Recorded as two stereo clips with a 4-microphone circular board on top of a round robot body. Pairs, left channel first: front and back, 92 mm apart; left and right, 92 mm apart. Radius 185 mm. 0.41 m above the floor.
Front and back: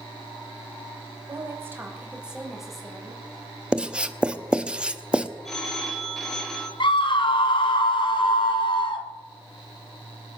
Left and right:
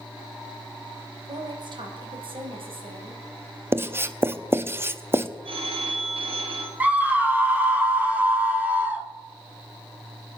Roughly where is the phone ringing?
Right.